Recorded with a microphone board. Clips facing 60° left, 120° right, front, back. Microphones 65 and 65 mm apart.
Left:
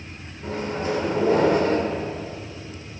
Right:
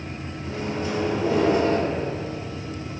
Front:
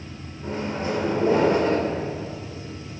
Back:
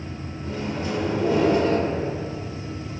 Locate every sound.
0.4 s a microwave: 45° left, 1.0 m